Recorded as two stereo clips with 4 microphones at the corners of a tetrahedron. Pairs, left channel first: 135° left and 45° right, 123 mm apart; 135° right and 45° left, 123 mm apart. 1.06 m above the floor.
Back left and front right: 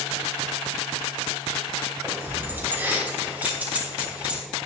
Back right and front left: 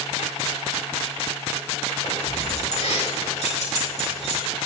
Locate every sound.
2.0 s keys jangling: 115° right, 3 m; by 4.4 s 125° right, 4 m